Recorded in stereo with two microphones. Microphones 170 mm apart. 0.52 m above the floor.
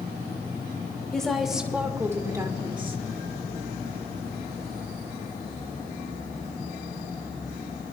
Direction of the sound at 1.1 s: 5° left (ahead or behind).